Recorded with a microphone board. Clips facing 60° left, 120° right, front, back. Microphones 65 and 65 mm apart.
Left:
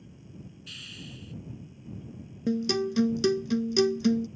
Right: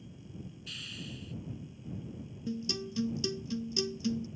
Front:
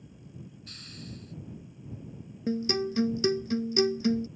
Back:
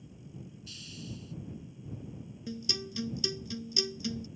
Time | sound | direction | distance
0.7 | a hiss | 30° right | ?
2.5 | a guitar | 45° left | ?